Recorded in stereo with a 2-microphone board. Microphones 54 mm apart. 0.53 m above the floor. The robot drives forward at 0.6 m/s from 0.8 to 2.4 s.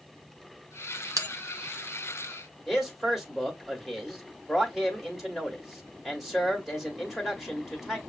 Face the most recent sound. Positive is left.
turn(degrees=0)  # may be behind; listen again after turning